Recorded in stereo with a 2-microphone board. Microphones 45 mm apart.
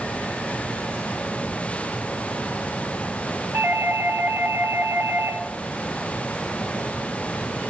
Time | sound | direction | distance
3.5 | a doorbell | 45° right (ahead or behind) | 2.5 m